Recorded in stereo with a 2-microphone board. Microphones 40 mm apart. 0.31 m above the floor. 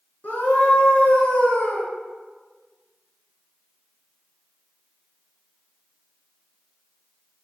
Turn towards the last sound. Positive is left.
turn(degrees=45)  # may be behind; listen again after turning